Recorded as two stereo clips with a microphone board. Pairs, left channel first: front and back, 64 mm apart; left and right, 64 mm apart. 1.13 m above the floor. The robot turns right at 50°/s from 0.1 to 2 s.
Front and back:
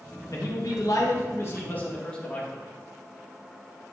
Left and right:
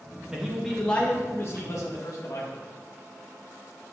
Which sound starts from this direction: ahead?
A man speaking, at 0.3 s.